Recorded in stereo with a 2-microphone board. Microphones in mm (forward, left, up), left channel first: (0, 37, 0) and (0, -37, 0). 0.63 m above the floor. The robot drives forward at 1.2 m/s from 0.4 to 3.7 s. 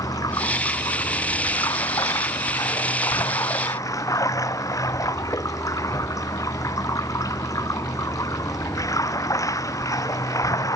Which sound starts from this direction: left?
Running water, at 0.0 s.